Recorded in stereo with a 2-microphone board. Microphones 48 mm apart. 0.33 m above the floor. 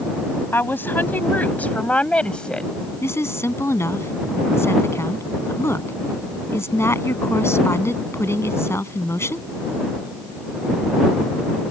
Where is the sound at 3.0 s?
70° left (ahead or behind).